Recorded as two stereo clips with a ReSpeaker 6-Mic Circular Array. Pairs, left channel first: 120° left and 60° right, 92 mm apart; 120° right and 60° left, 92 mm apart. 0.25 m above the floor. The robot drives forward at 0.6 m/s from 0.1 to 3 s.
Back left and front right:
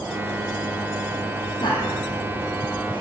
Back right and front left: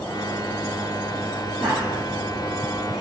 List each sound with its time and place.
1.6 s laughter: 150° left, 6.5 m